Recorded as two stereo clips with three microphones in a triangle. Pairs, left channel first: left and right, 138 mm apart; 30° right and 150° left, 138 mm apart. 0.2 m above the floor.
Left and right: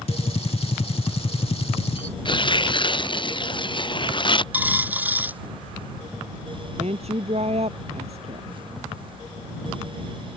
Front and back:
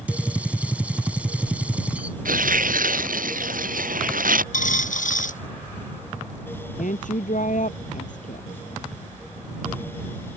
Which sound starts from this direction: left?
A gunshot, at 0.1 s.